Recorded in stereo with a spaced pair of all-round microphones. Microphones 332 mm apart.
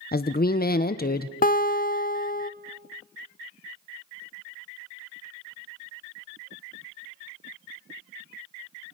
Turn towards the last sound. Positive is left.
turn(degrees=25)  # may be behind; listen again after turning